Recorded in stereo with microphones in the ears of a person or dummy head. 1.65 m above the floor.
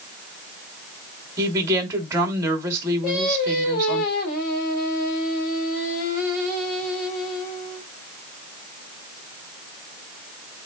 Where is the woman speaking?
20° right (ahead or behind), 3 m.